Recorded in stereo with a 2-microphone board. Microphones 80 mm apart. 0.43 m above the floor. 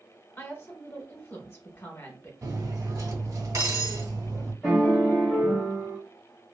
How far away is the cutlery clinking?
About 1.3 m.